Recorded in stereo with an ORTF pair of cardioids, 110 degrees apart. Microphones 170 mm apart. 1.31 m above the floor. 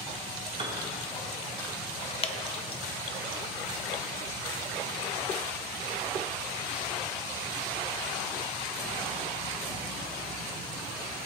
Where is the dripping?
35° left, 0.9 m.